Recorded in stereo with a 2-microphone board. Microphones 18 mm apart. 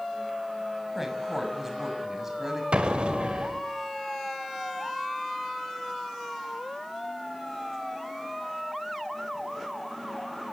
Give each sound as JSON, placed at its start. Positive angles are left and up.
{"t": 0.9, "sound": "a woman speaking", "side_deg": -20, "distance_m": 5.5}
{"t": 2.7, "sound": "an explosion", "side_deg": -80, "distance_m": 2.5}